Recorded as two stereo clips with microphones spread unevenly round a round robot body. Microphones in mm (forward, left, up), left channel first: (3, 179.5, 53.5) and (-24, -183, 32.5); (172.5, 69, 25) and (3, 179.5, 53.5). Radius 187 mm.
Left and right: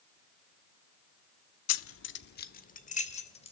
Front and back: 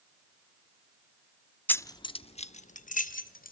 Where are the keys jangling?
40° left, 0.9 m; by 3.5 s 10° left, 2.5 m.